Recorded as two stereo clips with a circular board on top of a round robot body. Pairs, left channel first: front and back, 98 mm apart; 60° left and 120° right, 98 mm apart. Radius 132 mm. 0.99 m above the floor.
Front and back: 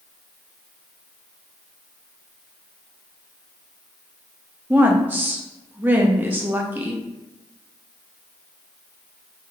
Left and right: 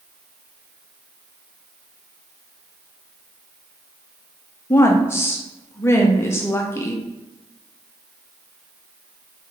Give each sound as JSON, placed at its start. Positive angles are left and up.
{"t": 4.7, "sound": "a woman speaking", "azimuth_deg": 115, "distance_m": 0.6}